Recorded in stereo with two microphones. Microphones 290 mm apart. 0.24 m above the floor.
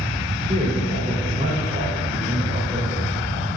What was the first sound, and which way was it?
A man speaking, 20° right (ahead or behind).